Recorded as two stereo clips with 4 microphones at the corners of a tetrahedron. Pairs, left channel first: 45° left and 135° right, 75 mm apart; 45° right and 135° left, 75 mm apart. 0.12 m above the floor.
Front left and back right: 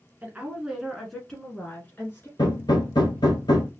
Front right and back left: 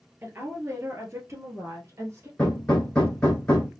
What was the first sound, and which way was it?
A woman speaking, 165° left.